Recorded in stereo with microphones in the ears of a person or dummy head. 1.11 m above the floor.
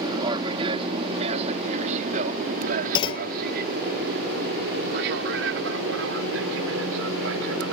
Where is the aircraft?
20° right (ahead or behind); by 7.7 s 70° right (ahead or behind).